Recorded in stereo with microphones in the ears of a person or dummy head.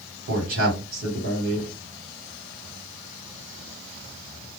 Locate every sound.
0.3 s a man speaking: 60° right (ahead or behind), 1.3 m